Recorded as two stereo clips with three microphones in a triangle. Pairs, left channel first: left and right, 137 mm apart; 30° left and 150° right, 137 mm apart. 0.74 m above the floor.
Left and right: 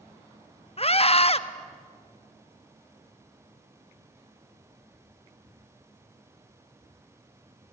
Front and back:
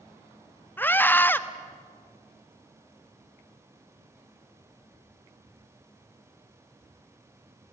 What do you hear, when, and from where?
0.8 s a scream: 100° left, 1.0 m